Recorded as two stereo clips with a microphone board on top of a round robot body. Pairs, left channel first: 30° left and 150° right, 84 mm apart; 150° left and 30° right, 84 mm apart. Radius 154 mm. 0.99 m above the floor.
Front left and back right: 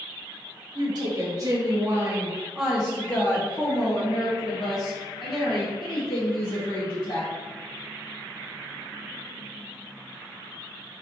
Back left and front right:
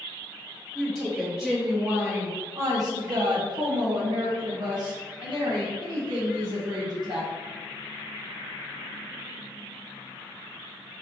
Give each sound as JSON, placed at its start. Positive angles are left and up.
{"t": 0.8, "sound": "a woman speaking", "azimuth_deg": -125, "distance_m": 1.2}